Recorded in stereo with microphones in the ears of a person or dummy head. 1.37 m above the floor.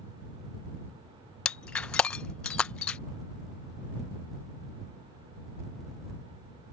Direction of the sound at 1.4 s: 15° left (ahead or behind).